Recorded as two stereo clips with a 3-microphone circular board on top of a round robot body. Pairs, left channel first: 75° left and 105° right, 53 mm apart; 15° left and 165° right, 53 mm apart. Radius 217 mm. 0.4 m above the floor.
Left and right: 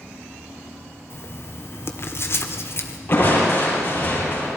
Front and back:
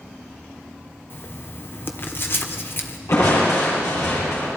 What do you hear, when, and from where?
1.1 s writing: 50° left, 1.9 m
3.1 s crushing: 25° left, 8.5 m